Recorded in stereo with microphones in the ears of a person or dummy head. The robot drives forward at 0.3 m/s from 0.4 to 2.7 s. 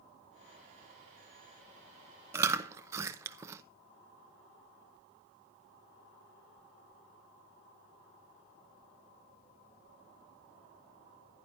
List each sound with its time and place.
2.3 s chewing: 15° right (ahead or behind), 0.9 m